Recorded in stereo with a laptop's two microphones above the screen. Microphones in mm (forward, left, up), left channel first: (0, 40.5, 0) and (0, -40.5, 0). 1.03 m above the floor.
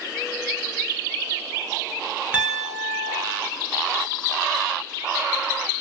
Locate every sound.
2.3 s a piano: 15° right (ahead or behind), 0.9 m